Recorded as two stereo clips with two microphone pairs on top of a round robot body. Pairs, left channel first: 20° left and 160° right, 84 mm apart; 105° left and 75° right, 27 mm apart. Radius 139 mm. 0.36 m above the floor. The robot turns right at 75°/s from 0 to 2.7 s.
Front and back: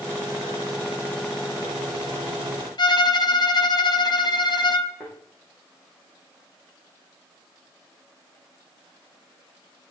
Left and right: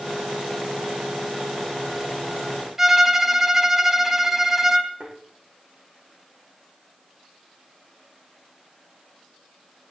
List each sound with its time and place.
2.8 s a violin: 5° right, 2.5 m
5.0 s a thud: 65° right, 7.5 m